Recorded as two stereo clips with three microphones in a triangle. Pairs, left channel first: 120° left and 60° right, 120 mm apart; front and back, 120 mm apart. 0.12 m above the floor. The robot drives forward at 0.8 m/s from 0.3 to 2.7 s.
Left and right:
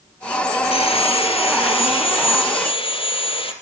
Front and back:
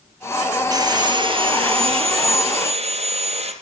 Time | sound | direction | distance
0.7 | sawing | 130° left | 1.7 m